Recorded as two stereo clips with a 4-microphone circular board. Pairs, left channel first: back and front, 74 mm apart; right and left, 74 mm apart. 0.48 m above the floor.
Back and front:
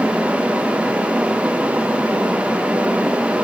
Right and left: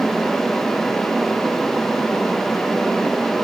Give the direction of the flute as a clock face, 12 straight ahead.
No flute in this recording.